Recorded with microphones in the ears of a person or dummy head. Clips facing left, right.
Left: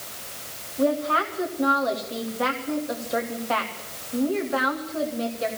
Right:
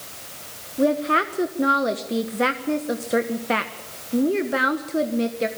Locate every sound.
0.8 s a woman speaking: 35° right (ahead or behind), 1.2 m